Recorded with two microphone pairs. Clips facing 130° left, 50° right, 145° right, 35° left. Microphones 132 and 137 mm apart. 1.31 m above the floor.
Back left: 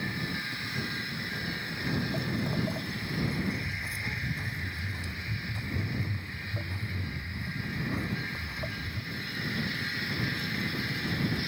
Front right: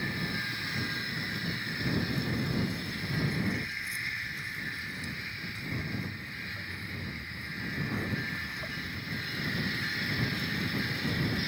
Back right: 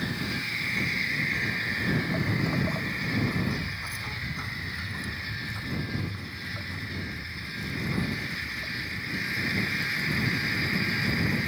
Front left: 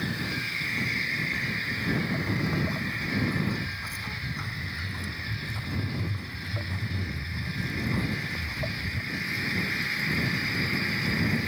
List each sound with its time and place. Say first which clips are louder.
1.3 s footsteps: even, back right 1 dB; 150° left; by 9.0 s 65° left